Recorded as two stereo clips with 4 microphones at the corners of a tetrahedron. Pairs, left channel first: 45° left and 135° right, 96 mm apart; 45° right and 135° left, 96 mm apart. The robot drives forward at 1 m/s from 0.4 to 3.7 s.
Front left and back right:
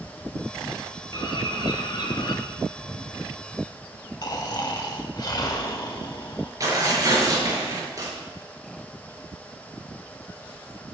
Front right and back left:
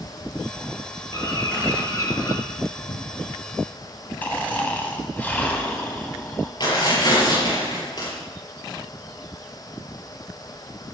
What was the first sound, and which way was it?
A bird, 5° left.